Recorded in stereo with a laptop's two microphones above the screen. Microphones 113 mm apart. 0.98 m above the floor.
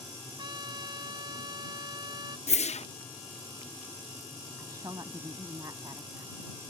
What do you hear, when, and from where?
0.4 s a trumpet: 40° right (ahead or behind)
2.5 s a whoosh: 75° left (ahead or behind)
4.6 s a woman speaking: 30° right (ahead or behind)